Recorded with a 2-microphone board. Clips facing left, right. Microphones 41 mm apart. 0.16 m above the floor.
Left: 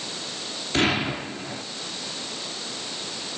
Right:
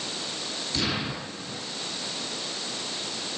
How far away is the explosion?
About 3 m.